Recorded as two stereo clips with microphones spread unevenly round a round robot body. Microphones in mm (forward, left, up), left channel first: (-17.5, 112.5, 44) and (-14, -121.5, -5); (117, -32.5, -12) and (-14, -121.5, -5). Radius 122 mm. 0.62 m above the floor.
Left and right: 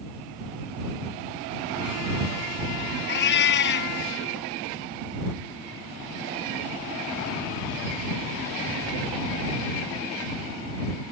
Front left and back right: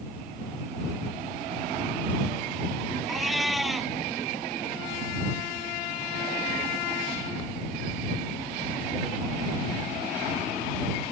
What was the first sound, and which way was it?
A cat meowing, 125° left.